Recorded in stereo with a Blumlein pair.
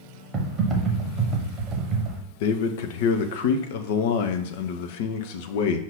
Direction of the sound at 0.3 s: 20° right.